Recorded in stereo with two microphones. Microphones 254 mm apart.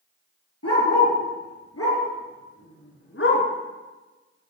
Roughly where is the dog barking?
Left.